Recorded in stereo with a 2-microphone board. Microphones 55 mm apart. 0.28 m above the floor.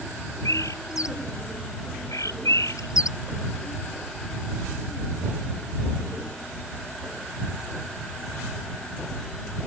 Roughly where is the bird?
Left.